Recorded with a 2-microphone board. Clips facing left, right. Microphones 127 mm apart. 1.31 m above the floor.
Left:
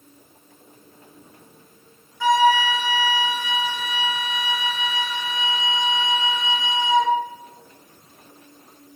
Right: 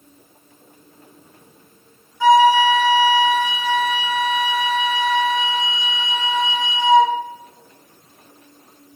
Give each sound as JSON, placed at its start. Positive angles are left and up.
{"t": 2.2, "sound": "a flute", "side_deg": -20, "distance_m": 1.4}